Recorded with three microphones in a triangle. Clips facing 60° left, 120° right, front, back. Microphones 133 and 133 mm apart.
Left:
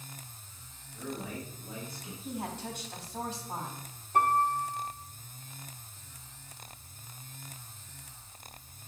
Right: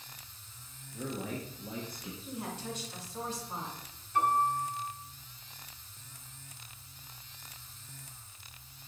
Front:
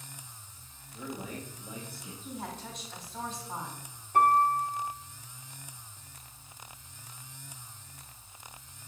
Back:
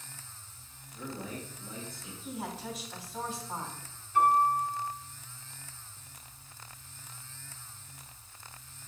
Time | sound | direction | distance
0.9 | a man speaking | 80° right | 1.6 m
2.2 | a woman speaking | 95° left | 3 m
4.1 | a piano | 30° left | 1.3 m